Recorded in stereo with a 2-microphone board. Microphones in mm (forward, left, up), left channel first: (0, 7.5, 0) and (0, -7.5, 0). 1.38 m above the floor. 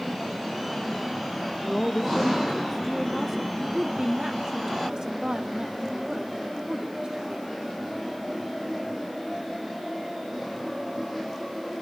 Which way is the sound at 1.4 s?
60° left (ahead or behind).